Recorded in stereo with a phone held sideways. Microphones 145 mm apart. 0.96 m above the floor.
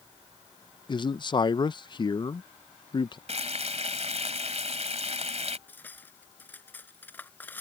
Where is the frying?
50° right (ahead or behind).